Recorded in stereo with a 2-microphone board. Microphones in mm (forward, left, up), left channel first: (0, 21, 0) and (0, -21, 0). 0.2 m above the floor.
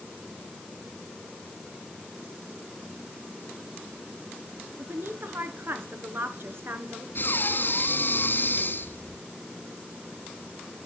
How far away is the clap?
No clap in this recording.